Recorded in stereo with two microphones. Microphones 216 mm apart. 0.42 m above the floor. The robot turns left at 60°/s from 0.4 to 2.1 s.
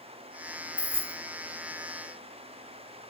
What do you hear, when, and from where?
0.8 s keys jangling: 5° right (ahead or behind), 0.6 m; by 1.2 s 15° right (ahead or behind), 0.6 m